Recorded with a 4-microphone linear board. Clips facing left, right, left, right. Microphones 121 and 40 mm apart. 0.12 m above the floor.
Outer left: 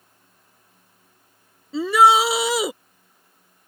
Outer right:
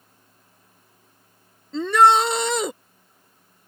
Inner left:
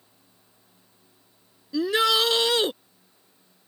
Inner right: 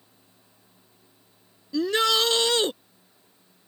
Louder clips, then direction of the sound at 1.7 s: Outer left 1 dB, inner left 1 dB; 5° left (ahead or behind).